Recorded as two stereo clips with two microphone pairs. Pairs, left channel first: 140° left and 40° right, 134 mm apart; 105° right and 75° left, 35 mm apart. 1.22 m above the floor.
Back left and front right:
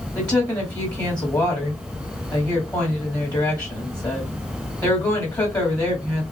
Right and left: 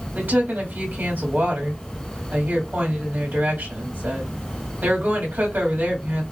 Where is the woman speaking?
75° left, 2.5 m.